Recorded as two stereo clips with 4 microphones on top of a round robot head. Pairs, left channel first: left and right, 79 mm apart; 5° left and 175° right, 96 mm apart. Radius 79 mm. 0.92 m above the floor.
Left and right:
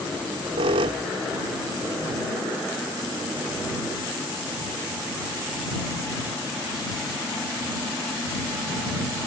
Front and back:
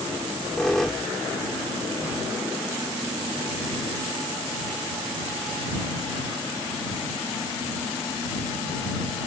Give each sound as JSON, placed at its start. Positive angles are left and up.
{"t": 0.1, "sound": "a squeak", "azimuth_deg": -85}